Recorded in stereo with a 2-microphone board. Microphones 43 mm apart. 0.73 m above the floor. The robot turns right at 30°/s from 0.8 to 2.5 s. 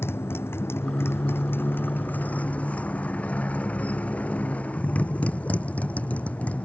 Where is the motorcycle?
95° left; by 6.7 s 145° left.